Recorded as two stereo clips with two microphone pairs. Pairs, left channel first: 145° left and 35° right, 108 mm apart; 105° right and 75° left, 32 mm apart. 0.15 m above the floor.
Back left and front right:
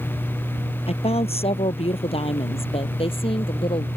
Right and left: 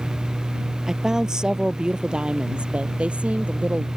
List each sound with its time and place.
0.9 s a woman speaking: 145° left; by 3.9 s 110° left